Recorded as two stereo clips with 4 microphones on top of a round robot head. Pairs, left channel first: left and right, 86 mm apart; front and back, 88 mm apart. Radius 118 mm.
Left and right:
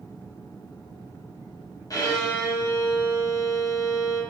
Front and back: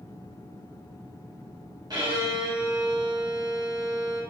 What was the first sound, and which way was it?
A violin, 135° left.